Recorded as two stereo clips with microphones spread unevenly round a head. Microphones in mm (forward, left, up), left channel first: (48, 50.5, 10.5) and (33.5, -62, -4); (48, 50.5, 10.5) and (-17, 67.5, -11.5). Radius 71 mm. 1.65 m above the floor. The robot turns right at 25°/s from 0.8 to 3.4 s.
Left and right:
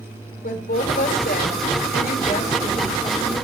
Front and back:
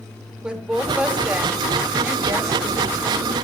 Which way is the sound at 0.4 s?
85° left.